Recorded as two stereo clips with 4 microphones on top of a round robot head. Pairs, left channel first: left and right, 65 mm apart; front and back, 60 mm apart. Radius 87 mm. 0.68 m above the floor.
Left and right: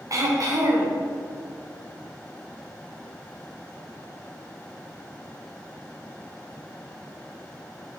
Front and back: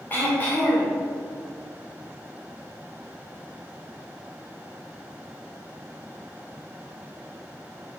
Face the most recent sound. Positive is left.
turn(degrees=-60)